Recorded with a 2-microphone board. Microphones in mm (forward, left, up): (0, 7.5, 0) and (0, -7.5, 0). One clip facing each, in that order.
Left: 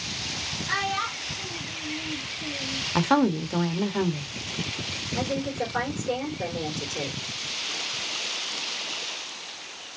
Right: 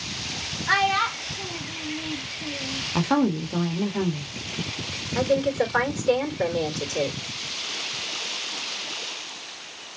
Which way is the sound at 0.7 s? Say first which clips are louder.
Right 7 dB; 70° right (ahead or behind).